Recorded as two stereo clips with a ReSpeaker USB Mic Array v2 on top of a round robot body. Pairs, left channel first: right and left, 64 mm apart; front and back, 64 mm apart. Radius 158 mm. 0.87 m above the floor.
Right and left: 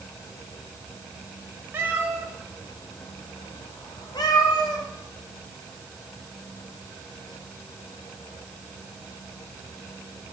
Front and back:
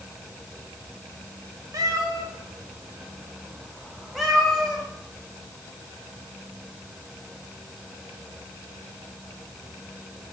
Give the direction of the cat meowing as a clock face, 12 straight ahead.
7 o'clock.